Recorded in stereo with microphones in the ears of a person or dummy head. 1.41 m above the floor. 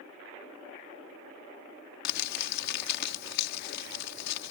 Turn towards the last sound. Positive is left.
turn(degrees=60)  # may be behind; listen again after turning